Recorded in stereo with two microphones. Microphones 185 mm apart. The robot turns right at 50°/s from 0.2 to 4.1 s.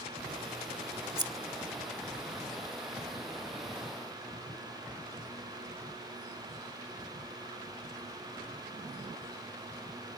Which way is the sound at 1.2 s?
20° right (ahead or behind).